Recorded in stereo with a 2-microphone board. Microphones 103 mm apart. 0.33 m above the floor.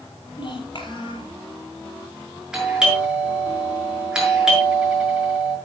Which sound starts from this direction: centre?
A doorbell, at 2.5 s.